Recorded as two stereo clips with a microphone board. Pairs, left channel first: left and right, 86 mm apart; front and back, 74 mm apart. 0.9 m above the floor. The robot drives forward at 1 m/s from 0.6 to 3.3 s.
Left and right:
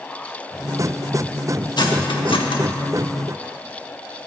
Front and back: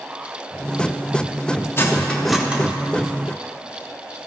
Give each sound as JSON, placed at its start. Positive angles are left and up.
{"t": 1.8, "sound": "cutlery clinking", "azimuth_deg": 55, "distance_m": 1.0}